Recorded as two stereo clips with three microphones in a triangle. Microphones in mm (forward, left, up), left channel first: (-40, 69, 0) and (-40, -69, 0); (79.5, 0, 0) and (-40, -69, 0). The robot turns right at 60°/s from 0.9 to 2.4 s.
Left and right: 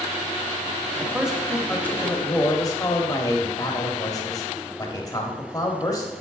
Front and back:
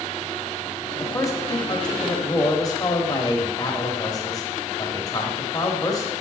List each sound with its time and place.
1.0 s a man speaking: 25° right, 1.0 m; by 6.1 s 60° left, 1.0 m